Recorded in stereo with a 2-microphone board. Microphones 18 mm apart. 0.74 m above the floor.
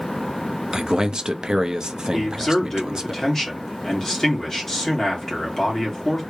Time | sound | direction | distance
0.7 | a man speaking | 40° right (ahead or behind) | 0.6 m
2.1 | a man speaking | 30° left (ahead or behind) | 2.0 m